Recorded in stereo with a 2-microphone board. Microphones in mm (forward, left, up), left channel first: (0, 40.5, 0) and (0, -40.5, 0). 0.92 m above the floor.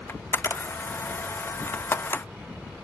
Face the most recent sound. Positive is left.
turn(degrees=30)  # may be behind; listen again after turning